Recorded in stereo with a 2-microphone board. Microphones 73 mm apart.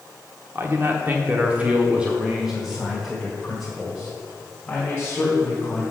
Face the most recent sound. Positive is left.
turn(degrees=10)  # may be behind; listen again after turning